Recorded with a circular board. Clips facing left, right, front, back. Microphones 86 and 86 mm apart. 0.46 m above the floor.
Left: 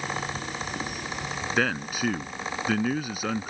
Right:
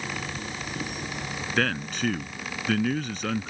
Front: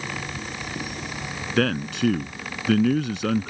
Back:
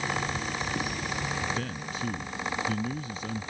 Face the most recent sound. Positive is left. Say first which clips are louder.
# even, front 11 dB
turn(degrees=10)